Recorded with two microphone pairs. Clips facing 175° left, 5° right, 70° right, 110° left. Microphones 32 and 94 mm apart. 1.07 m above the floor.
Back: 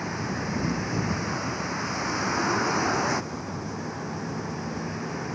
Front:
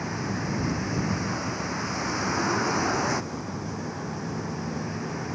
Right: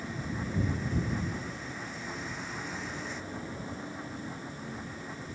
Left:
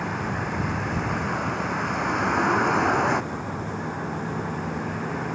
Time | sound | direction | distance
0.0 | a vehicle | 90° left | ?